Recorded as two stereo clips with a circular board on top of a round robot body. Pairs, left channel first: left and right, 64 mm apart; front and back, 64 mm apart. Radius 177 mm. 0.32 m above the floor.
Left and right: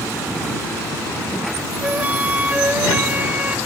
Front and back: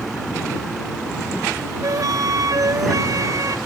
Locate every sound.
1.8 s a flute: 155° right